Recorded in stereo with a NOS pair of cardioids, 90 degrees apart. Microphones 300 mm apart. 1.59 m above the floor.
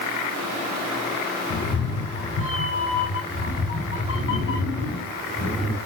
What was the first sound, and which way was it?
A cat meowing, 55° left.